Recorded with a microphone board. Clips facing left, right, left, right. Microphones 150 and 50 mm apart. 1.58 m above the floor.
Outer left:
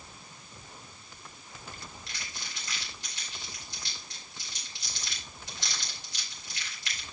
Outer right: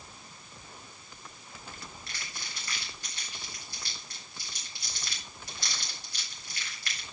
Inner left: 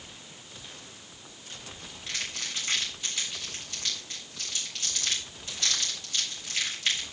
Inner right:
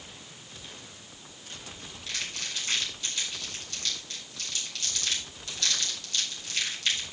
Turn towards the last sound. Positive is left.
turn(degrees=20)  # may be behind; listen again after turning